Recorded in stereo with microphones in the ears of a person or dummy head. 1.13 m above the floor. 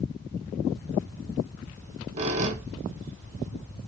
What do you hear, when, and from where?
1.7 s a squeak: 35° right (ahead or behind), 1.2 m